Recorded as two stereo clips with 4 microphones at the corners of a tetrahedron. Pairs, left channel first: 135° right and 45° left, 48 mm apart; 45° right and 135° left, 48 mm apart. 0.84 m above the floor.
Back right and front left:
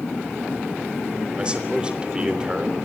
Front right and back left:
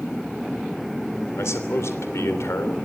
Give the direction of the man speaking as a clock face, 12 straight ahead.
1 o'clock.